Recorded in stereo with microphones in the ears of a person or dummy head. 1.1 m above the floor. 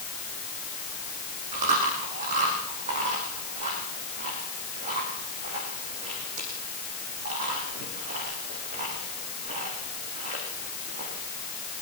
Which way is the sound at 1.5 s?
40° right (ahead or behind).